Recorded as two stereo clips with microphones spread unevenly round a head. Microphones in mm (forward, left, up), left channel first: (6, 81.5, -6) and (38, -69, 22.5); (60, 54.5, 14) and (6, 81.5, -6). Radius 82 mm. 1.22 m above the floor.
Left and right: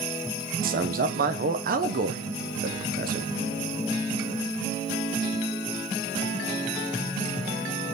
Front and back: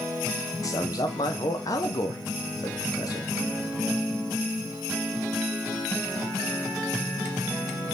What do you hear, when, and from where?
0.6 s a man speaking: 70° right, 0.8 m